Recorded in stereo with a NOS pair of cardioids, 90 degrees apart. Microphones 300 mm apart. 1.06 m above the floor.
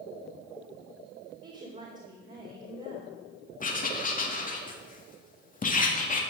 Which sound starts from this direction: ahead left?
Writing, at 3.6 s.